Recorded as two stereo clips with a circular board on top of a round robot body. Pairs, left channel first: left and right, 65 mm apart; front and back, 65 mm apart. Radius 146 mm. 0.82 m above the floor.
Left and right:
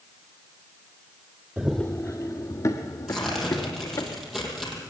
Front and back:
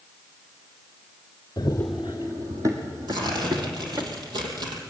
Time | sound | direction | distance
1.6 | running footsteps | 25° right | 0.9 m
3.1 | tearing paper | 175° right | 5.5 m